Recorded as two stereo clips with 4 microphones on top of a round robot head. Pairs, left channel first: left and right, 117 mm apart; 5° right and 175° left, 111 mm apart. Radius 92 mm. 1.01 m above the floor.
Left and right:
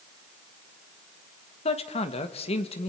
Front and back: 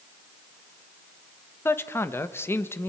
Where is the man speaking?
65° left, 1.3 m.